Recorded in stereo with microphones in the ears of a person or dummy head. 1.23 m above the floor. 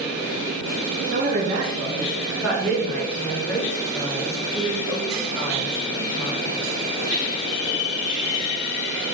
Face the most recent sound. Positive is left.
turn(degrees=20)  # may be behind; listen again after turning